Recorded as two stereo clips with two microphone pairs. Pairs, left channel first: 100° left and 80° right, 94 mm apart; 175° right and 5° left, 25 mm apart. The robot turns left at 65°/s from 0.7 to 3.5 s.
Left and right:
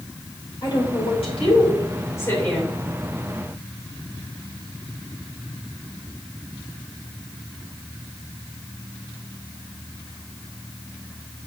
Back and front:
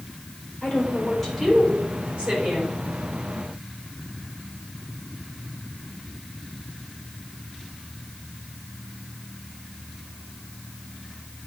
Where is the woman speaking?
140° left, 4 m; by 2.8 s 5° left, 4 m.